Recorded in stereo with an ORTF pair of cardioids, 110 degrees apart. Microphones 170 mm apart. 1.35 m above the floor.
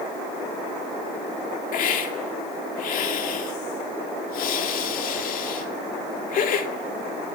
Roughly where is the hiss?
Ahead left.